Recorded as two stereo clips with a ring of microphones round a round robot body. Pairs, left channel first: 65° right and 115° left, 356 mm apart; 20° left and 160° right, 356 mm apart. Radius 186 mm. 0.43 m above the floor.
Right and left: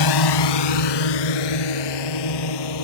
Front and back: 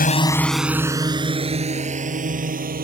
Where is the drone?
45° right; by 2.9 s 90° right.